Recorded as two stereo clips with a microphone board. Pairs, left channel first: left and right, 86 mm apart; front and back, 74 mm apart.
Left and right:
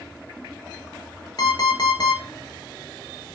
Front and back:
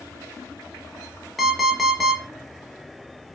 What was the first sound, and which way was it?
An alarm clock, 90° left.